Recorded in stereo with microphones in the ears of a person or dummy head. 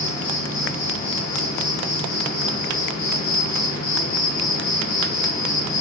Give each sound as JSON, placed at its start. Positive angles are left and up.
{"t": 0.0, "sound": "an insect", "side_deg": 55, "distance_m": 1.0}